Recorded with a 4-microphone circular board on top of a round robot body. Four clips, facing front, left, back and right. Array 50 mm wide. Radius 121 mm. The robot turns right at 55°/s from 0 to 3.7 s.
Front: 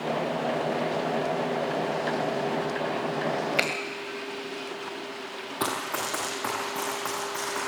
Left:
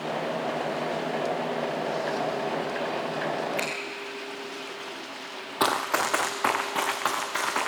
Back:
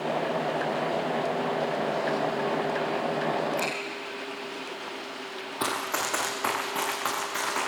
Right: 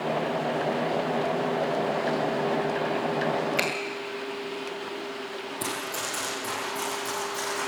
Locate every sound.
3.6 s a finger snap: 15° right, 2 m; by 3.7 s 10° right, 2 m
5.6 s running footsteps: 85° left, 0.7 m; by 7.7 s 105° left, 3.5 m